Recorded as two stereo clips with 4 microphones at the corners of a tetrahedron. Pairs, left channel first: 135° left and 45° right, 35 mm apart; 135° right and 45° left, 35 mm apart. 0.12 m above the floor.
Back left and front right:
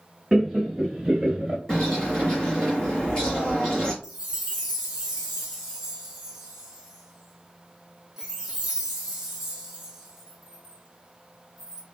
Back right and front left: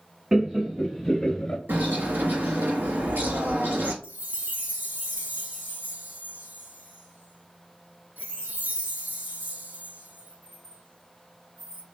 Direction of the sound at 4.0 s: 30° left.